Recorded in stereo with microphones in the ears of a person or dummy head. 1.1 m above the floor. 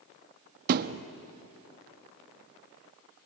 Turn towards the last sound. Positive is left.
turn(degrees=-50)  # may be behind; listen again after turning